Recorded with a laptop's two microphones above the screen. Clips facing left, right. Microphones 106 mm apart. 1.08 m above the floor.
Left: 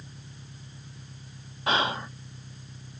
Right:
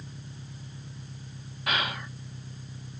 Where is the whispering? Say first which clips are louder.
Left 5 dB; 30° left (ahead or behind).